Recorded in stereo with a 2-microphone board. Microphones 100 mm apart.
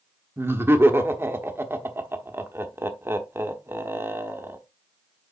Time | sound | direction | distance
0.4 | laughter | 25° right (ahead or behind) | 1.2 m